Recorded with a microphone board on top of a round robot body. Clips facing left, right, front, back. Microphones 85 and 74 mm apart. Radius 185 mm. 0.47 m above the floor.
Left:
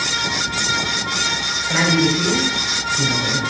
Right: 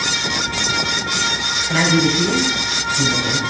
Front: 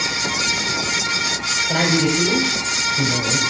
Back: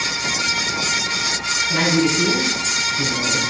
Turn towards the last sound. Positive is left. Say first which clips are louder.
# right 1 dB, even
turn(degrees=5)